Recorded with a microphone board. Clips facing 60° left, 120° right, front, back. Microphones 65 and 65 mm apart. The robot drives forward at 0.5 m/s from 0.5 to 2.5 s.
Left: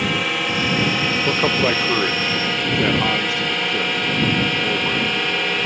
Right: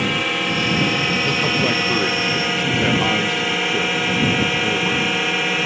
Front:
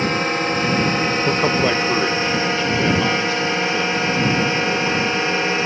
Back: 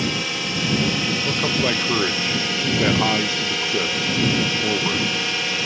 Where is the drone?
30° right; by 5.7 s 40° right.